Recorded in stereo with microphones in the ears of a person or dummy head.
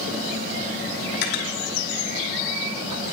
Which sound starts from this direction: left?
Cutlery clinking, at 1.1 s.